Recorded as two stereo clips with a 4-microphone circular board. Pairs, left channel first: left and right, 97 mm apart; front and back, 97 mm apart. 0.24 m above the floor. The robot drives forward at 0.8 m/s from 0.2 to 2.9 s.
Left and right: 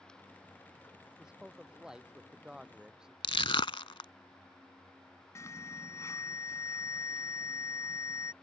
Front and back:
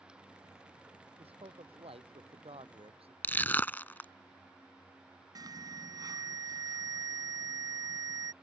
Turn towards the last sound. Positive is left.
turn(degrees=145)